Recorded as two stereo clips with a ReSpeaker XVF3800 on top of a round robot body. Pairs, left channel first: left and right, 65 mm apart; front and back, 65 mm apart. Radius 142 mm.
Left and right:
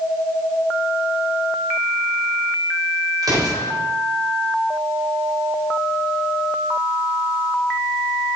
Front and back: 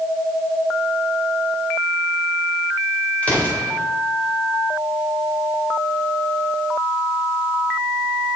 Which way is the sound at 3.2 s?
70° right.